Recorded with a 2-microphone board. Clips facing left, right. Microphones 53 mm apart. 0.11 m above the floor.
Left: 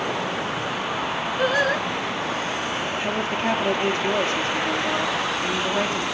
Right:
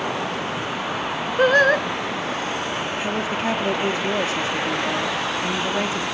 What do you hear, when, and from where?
1.4 s singing: 50° right (ahead or behind), 1.4 m
3.0 s a woman speaking: 5° right (ahead or behind), 3 m